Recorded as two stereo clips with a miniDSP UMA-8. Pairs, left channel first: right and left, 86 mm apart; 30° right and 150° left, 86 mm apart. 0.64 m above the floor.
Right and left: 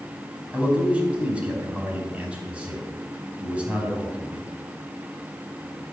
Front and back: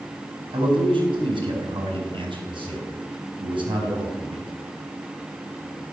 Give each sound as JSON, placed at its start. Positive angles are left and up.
{"t": 0.5, "sound": "a man speaking", "azimuth_deg": 165, "distance_m": 4.5}